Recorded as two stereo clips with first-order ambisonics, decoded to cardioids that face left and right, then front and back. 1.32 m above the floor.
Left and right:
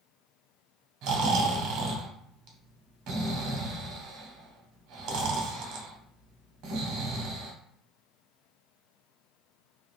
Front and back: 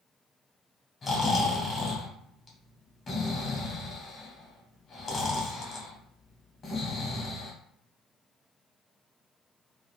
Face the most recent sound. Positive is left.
turn(degrees=-75)